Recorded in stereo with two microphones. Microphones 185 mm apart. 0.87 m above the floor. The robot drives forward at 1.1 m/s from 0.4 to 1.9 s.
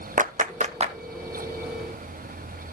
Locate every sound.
0.2 s a clap: 50° right (ahead or behind), 0.7 m; by 1.0 s 35° right (ahead or behind), 1.0 m